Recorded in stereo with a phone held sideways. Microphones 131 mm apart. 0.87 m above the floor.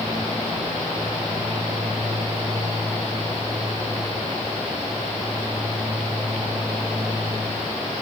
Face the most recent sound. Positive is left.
No sound to turn to.